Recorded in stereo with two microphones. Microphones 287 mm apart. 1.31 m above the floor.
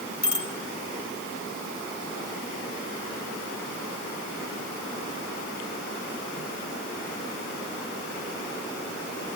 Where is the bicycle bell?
85° left, 4 m.